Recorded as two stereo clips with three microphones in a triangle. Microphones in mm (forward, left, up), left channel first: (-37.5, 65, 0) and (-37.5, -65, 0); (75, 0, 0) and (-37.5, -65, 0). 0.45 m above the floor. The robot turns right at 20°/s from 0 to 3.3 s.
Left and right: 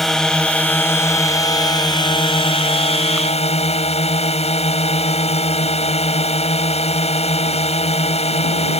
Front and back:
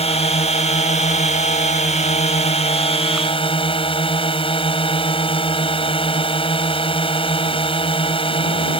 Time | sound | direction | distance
0.0 | a drone | straight ahead | ?